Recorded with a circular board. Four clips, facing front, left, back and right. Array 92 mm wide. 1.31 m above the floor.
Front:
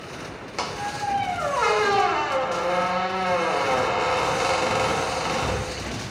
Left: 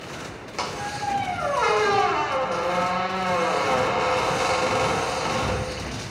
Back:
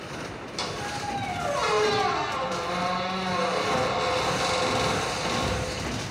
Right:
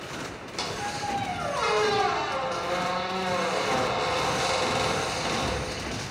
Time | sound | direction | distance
0.6 | a squeak | 35° left | 1.2 m